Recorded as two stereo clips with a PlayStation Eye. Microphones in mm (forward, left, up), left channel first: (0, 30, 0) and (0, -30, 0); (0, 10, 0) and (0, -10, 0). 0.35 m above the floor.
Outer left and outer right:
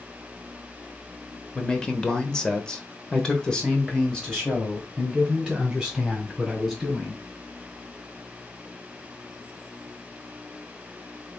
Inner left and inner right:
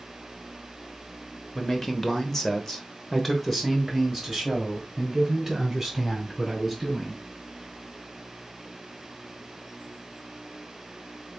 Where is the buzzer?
No buzzer in this recording.